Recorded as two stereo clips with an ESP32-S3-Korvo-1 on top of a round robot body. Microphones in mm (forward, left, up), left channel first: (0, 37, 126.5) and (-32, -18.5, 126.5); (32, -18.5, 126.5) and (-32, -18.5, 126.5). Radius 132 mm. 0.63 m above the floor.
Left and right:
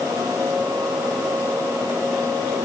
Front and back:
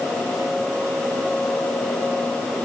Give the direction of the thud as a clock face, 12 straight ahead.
I don't hear a thud.